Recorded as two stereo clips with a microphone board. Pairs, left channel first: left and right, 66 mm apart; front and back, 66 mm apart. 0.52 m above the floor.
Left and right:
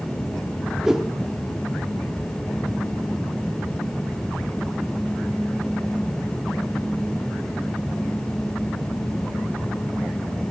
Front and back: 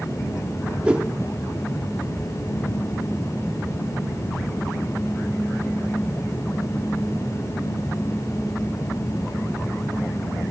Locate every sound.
0.8 s a whoosh: 150° right, 1.1 m